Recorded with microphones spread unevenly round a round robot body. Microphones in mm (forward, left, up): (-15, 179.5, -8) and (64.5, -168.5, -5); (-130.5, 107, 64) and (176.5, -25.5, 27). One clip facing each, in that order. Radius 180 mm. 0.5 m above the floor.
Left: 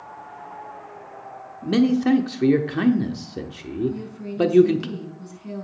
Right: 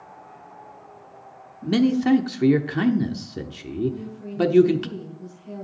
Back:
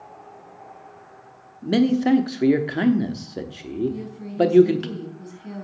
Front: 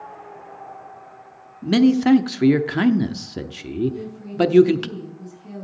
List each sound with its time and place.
1.6 s a man speaking: straight ahead, 0.8 m
3.9 s a woman speaking: 85° left, 4 m